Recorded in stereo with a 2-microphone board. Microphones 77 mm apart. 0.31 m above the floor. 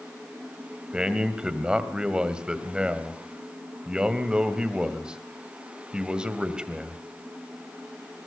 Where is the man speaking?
10° right (ahead or behind), 1.8 m.